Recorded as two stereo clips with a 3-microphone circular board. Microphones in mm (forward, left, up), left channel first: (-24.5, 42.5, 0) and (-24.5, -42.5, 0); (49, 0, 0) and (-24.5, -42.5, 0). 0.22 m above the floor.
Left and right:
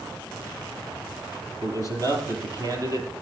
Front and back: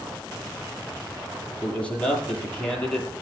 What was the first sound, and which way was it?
A man speaking, 45° right.